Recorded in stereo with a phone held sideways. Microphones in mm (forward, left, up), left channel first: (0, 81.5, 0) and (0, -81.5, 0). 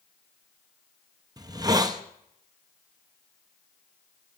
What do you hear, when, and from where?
1.4 s a hiss: 25° right (ahead or behind), 0.5 m